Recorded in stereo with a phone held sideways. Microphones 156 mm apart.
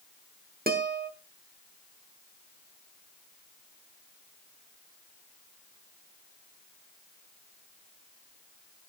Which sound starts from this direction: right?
A guitar, at 0.7 s.